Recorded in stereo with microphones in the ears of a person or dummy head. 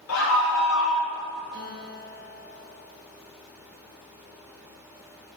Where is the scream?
80° left, 1.2 m; by 1.1 s 55° left (ahead or behind), 0.8 m.